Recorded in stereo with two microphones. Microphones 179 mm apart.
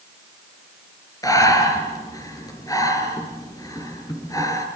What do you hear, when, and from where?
1.2 s breathing: 20° left (ahead or behind), 4 m